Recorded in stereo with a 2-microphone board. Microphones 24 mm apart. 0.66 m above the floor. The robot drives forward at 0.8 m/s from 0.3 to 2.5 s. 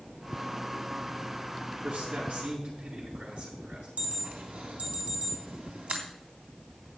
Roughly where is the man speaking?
Right.